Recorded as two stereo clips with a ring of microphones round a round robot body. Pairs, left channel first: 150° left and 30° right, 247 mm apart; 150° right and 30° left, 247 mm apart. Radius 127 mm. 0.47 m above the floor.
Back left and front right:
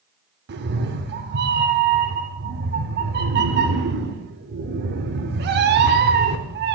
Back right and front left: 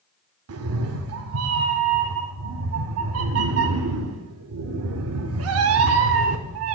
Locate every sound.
0.5 s a cat meowing: 15° left, 0.6 m